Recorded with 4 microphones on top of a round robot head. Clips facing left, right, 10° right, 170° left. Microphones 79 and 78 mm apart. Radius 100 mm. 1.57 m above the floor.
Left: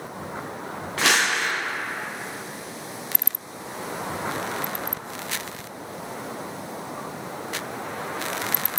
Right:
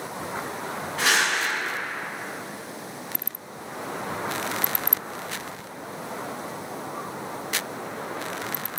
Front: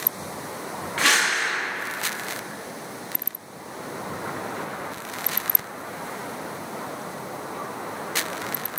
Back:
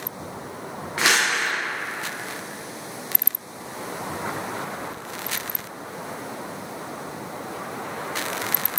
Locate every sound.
1.0 s crumpling: 100° left, 0.8 m